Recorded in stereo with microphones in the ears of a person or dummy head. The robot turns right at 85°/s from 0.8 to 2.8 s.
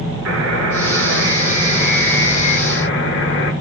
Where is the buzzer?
105° right, 8.5 m; by 3.5 s 65° left, 8.5 m.